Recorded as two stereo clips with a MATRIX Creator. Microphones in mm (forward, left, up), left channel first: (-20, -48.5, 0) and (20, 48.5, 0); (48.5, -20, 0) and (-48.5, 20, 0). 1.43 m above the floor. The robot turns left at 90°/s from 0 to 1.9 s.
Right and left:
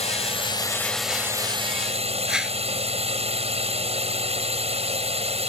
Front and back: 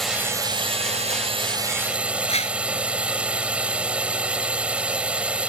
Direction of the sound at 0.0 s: 110° right.